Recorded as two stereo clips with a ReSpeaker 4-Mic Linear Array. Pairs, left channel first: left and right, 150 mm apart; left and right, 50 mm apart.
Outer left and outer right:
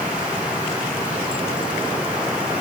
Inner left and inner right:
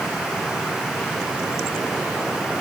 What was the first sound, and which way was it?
Only background noise.